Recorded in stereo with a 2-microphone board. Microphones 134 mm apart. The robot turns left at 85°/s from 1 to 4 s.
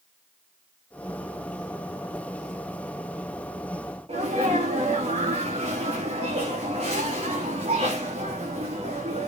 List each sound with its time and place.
4.1 s a sneeze: 50° right (ahead or behind), 1.8 m